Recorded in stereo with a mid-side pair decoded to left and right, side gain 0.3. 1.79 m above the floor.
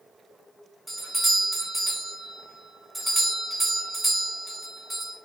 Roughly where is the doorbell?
Ahead.